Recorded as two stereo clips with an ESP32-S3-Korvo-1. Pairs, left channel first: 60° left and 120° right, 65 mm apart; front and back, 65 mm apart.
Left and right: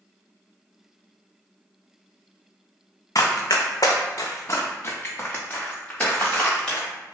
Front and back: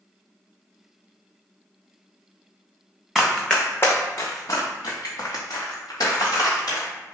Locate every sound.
3.1 s running footsteps: 85° left, 0.7 m; by 6.9 s 15° right, 1.8 m